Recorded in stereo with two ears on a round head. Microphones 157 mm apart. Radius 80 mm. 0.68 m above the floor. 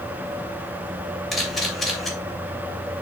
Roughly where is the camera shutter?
Centre.